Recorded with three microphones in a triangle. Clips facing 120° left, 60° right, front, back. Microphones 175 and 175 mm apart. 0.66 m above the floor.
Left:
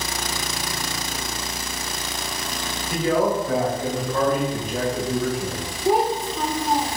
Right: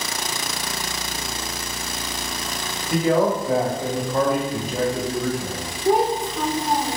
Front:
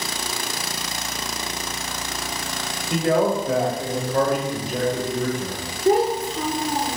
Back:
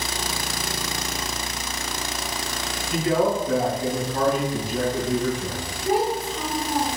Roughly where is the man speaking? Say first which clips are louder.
Right 2 dB, front 2 dB; ahead.